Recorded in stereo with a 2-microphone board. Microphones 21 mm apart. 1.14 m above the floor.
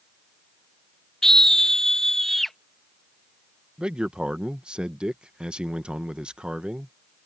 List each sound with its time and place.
1.2 s a scream: 25° left (ahead or behind); by 2.6 s 15° left (ahead or behind)
3.8 s a man speaking: 50° right (ahead or behind)